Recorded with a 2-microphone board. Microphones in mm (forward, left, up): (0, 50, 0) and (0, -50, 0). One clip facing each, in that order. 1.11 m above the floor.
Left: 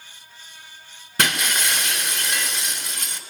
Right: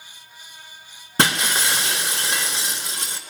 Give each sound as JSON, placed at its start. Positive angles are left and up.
{"t": 1.2, "sound": "breaking glass", "side_deg": -30, "distance_m": 1.6}